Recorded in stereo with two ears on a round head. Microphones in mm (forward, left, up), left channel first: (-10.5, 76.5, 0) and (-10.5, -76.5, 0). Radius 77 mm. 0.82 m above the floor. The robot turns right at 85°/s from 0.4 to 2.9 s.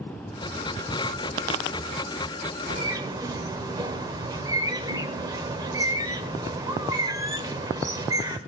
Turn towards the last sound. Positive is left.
turn(degrees=-20)  # may be behind; listen again after turning